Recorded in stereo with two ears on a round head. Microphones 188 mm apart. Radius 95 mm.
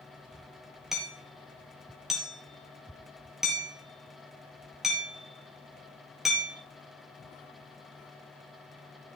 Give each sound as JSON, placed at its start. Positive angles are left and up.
{"t": 0.9, "sound": "hammering", "side_deg": 0, "distance_m": 4.5}